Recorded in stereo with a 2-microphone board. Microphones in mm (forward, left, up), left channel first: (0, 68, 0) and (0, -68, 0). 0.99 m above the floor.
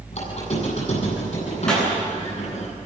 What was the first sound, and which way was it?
A squeak, 55° left (ahead or behind).